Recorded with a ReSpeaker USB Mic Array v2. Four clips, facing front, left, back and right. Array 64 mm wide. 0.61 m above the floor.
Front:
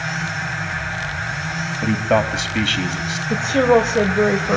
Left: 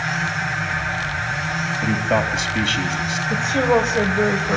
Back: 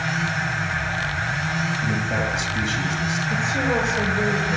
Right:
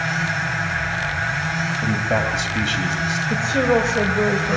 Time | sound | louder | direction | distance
1.8 | a man speaking | left 2 dB, front 6 dB | 5° left | 3.5 m
3.3 | a woman speaking | left 1 dB, front 10 dB | straight ahead | 2 m